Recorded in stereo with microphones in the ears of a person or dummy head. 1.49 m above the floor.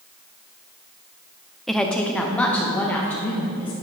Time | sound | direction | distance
1.7 | a woman speaking | centre (ahead or behind) | 0.5 m